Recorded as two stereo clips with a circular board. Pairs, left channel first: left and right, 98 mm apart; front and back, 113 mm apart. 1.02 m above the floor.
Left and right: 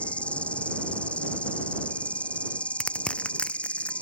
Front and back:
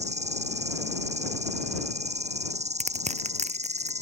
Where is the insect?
170° left.